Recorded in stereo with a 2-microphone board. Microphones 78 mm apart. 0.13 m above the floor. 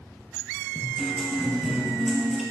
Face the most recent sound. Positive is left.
turn(degrees=-5)  # may be behind; listen again after turning